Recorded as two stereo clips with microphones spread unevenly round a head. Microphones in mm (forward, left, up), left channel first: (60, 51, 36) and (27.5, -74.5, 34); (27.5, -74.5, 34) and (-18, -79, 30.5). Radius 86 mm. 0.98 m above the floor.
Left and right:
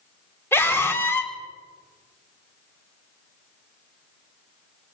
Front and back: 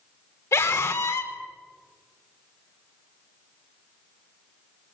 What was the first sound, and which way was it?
A scream, 5° left.